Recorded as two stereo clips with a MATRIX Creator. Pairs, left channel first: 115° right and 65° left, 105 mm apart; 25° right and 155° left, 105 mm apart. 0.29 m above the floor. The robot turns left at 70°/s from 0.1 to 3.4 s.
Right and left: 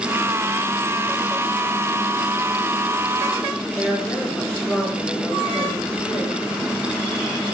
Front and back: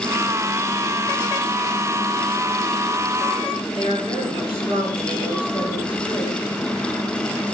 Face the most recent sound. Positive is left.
turn(degrees=170)